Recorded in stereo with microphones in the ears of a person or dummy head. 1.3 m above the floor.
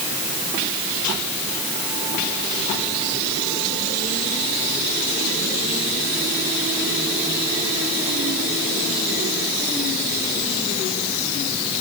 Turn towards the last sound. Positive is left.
No sound to turn to.